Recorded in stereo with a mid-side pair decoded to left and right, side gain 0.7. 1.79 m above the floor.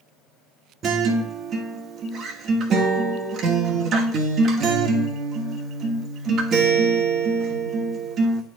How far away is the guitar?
About 1.1 m.